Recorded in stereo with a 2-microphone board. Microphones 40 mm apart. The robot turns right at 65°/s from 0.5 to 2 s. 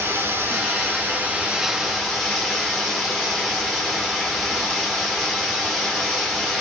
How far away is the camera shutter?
No camera shutter in this recording.